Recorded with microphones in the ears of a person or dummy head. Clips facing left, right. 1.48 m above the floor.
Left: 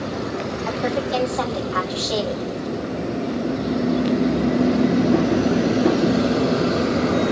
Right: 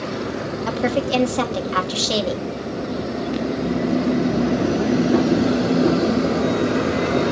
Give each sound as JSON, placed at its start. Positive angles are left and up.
{"t": 0.7, "sound": "a woman speaking", "side_deg": -45, "distance_m": 2.0}